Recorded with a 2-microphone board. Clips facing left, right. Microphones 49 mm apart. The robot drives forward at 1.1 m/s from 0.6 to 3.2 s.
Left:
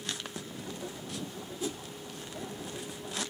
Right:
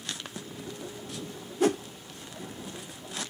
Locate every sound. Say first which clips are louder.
1.6 s a whoosh: right 12 dB; 60° right (ahead or behind)